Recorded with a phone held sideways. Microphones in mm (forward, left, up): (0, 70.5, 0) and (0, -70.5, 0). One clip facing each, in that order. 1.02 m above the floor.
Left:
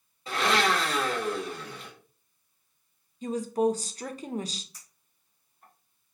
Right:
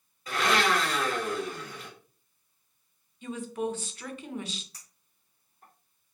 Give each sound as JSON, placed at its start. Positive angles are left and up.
{"t": 0.3, "sound": "a blender", "side_deg": 25, "distance_m": 1.5}
{"t": 3.2, "sound": "a woman speaking", "side_deg": 40, "distance_m": 0.5}
{"t": 4.7, "sound": "a clink", "side_deg": -70, "distance_m": 2.0}